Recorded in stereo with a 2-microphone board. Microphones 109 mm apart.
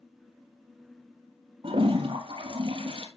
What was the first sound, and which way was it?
A toilet flushing, 55° right (ahead or behind).